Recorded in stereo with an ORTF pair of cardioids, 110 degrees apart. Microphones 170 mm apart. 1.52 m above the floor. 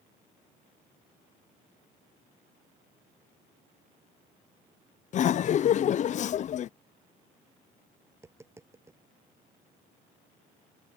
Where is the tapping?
15° right.